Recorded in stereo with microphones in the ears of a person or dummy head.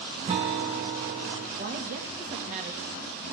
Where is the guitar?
30° right (ahead or behind), 0.9 m.